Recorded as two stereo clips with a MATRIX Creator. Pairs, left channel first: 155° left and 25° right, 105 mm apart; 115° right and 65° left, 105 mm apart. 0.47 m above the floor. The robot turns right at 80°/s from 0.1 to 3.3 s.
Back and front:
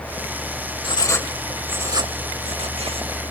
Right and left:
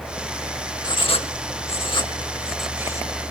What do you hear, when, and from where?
0.8 s writing: 160° right, 0.7 m; by 3.2 s 25° left, 0.7 m